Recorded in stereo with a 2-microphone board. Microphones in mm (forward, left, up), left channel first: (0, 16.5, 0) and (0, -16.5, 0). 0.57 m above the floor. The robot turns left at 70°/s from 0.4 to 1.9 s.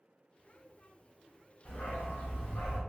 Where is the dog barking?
55° left (ahead or behind), 1.8 m; by 2.8 s 70° left (ahead or behind), 1.8 m.